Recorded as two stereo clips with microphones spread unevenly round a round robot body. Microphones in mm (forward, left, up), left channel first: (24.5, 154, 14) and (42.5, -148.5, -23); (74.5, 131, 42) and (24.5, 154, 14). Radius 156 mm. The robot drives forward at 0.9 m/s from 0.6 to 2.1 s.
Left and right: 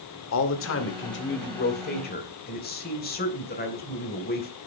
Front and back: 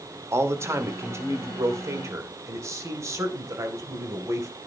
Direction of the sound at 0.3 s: 145° left.